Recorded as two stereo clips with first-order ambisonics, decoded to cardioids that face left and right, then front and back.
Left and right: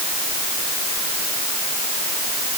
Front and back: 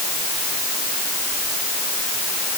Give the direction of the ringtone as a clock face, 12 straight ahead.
No ringtone in this recording.